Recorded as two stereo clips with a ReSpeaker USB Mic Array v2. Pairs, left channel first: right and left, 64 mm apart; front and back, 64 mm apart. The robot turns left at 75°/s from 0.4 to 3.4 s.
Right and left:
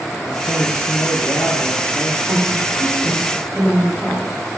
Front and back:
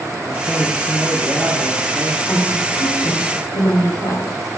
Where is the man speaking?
70° right, 2.5 m; by 2.2 s 155° left, 2.5 m.